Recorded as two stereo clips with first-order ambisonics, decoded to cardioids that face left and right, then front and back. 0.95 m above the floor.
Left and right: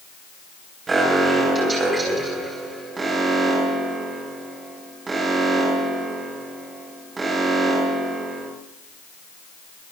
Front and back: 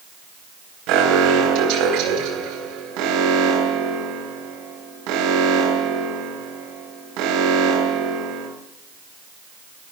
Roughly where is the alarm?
Behind.